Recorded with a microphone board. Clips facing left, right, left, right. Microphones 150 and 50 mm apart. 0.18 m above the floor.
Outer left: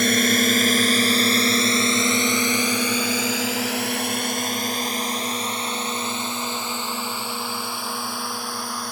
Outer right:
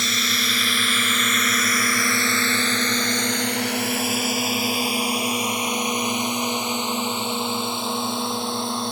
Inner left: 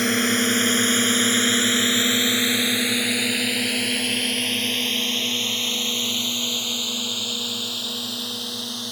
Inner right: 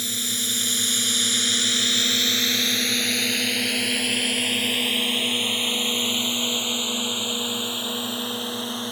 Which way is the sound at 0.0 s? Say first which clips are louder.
Outer left 9 dB, inner left 10 dB; 55° left (ahead or behind).